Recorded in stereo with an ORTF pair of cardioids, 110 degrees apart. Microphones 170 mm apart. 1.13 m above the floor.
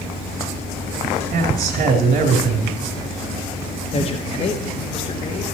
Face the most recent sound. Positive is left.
turn(degrees=35)